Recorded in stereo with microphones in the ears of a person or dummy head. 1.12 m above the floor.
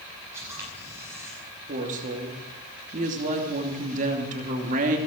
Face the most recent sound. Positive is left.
turn(degrees=-40)  # may be behind; listen again after turning